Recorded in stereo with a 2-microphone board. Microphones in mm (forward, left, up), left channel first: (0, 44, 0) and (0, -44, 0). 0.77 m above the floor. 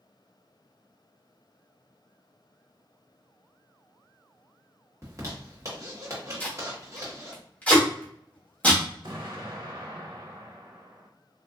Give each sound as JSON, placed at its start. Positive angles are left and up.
{"t": 5.0, "sound": "a zipper", "side_deg": -35, "distance_m": 1.2}
{"t": 6.4, "sound": "tape being pulled", "side_deg": 15, "distance_m": 1.2}
{"t": 9.0, "sound": "an explosion", "side_deg": -60, "distance_m": 0.8}